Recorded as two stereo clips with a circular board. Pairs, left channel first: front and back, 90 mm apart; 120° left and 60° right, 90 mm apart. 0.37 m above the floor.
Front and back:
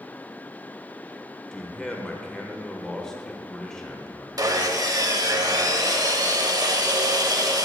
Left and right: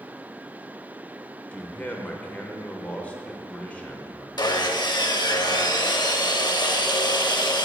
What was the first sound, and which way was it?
A man speaking, 75° left.